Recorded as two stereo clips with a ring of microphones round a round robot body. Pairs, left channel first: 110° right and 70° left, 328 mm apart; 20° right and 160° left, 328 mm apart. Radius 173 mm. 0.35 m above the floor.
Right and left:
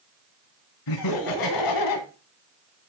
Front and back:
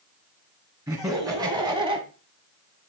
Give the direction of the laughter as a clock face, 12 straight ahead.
4 o'clock.